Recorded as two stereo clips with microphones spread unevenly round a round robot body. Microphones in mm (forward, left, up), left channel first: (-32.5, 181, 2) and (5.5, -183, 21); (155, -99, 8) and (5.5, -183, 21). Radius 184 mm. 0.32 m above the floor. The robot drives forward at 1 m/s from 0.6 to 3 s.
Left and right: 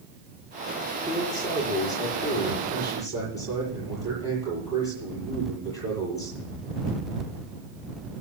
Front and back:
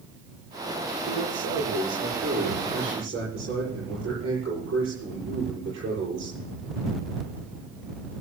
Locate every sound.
1.1 s a man speaking: 175° left, 7 m; by 6.4 s straight behind, 9 m